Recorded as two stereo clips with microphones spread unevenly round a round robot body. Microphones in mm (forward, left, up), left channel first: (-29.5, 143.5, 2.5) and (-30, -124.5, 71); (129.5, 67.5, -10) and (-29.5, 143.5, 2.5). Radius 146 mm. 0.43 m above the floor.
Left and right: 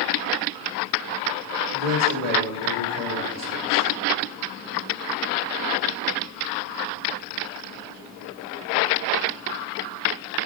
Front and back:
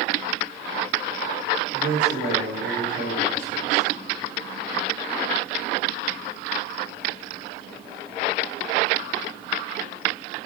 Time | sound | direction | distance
1.7 | a man speaking | 120° right | 6.5 m